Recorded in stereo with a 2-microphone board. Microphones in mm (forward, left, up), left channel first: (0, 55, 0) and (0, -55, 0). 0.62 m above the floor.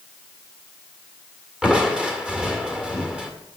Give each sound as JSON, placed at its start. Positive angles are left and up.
{"t": 1.6, "sound": "crushing", "side_deg": -10, "distance_m": 1.8}